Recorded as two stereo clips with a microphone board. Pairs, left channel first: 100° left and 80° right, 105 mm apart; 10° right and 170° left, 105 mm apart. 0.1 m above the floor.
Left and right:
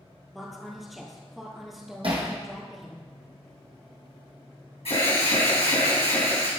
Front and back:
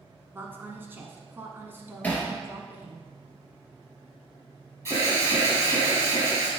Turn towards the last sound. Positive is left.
turn(degrees=105)